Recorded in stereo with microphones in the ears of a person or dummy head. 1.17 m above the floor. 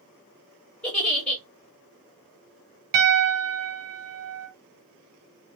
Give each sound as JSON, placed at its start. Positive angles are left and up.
{"t": 0.8, "sound": "a giggle", "side_deg": 5, "distance_m": 1.3}
{"t": 2.9, "sound": "a piano", "side_deg": -70, "distance_m": 1.7}